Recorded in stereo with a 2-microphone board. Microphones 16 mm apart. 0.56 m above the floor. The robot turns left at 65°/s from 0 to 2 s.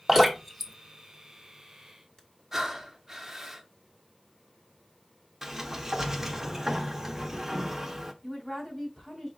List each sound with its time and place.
0.1 s dripping: 25° right (ahead or behind), 1.3 m; by 2.2 s 45° left (ahead or behind), 1.3 m
2.5 s breathing: 25° right (ahead or behind), 0.6 m
5.4 s a sliding door: 20° right (ahead or behind), 0.8 m
8.2 s a woman speaking: 15° left (ahead or behind), 2.5 m